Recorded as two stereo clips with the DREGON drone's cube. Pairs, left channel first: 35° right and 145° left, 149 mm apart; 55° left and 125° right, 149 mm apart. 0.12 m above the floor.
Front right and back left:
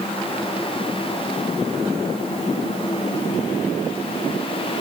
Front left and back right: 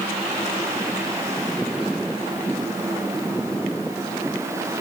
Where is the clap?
No clap in this recording.